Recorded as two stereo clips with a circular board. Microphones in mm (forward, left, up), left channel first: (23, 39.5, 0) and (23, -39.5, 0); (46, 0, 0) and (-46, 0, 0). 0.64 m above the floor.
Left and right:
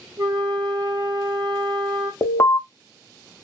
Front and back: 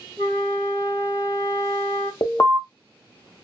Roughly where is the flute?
Right.